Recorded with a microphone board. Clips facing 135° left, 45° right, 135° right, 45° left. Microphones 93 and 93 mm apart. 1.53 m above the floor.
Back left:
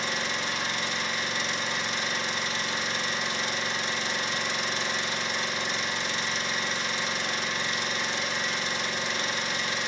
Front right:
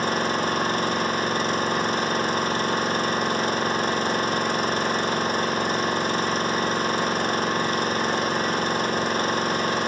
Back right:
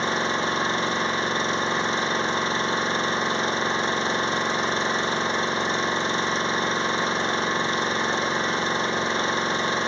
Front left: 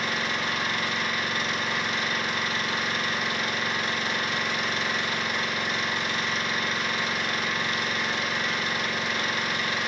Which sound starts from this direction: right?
An engine running, at 0.0 s.